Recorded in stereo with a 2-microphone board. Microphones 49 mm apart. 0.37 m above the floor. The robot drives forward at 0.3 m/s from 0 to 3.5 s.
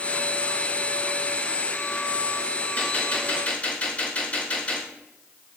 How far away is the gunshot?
About 5 m.